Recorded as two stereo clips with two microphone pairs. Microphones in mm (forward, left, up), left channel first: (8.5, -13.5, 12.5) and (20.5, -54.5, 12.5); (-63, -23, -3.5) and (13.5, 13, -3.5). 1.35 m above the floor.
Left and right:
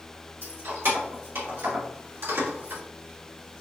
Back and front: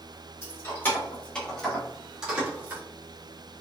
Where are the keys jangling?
100° right, 1.8 m; by 2.8 s 40° right, 1.5 m.